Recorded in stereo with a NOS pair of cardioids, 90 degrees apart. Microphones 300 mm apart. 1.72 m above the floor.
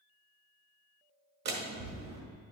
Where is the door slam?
65° right, 1.8 m.